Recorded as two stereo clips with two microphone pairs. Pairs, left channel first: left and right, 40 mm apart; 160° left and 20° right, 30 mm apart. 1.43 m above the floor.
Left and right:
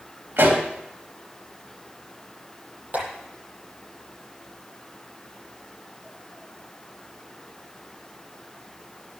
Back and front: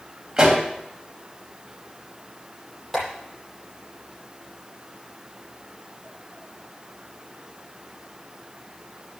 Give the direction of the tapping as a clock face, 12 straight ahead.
4 o'clock.